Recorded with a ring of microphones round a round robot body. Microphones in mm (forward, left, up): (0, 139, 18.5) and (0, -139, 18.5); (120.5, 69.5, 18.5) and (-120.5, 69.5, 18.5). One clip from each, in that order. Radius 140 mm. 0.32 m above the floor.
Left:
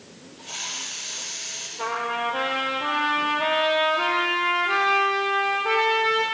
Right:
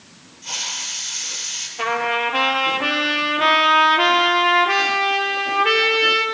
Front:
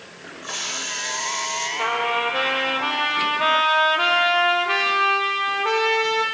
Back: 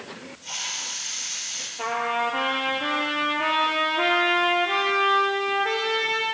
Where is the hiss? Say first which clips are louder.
Right 6 dB, front 3 dB; 130° right, 9.5 m.